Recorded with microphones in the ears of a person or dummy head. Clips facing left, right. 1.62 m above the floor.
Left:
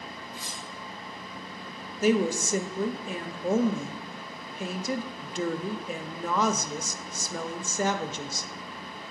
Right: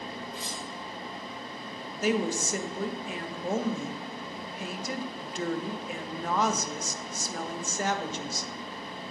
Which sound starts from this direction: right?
Cutlery clinking, at 0.3 s.